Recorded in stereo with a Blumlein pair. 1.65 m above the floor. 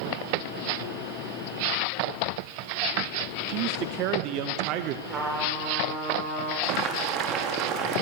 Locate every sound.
3.5 s a man speaking: 40° right, 1.5 m
5.1 s a trumpet: 25° right, 6.5 m
6.6 s boiling: 35° right, 4 m